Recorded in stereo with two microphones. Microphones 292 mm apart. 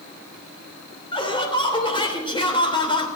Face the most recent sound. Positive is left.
turn(degrees=15)  # may be behind; listen again after turning